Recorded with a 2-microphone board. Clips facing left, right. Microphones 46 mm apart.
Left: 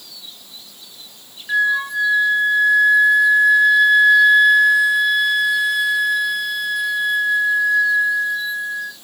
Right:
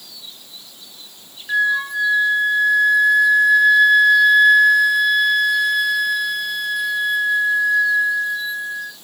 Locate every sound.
1.5 s a flute: 5° left (ahead or behind), 0.6 m